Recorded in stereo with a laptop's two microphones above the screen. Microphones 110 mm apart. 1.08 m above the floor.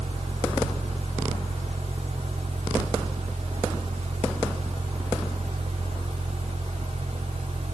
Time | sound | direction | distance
0.0 | a fan | 85° right | 2 m